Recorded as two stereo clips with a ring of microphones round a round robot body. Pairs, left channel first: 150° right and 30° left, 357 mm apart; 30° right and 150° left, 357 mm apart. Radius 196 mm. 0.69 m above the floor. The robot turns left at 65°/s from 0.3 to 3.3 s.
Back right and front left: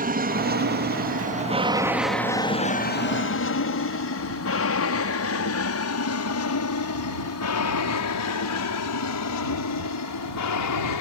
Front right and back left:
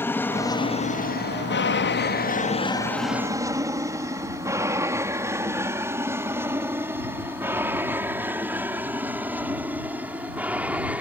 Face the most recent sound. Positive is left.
turn(degrees=-125)